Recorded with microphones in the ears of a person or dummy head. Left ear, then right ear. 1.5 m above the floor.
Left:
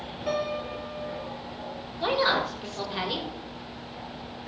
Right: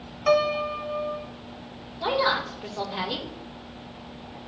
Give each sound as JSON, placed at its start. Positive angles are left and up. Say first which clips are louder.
{"t": 0.3, "sound": "a piano", "louder": "right 8 dB", "side_deg": -50, "distance_m": 1.8}
{"t": 2.0, "sound": "a woman speaking", "louder": "even", "side_deg": 15, "distance_m": 2.5}